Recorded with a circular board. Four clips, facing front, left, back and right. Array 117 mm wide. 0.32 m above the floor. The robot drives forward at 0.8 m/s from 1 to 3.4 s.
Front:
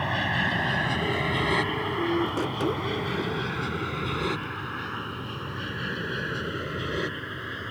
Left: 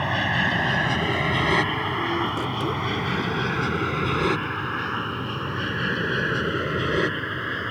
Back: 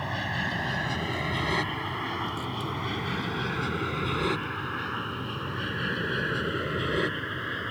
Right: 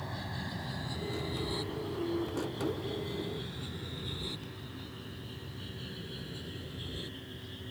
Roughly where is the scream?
No scream in this recording.